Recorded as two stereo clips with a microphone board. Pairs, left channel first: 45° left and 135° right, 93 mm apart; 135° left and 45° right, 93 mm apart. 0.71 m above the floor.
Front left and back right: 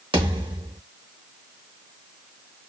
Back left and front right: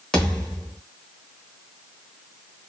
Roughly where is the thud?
Behind right.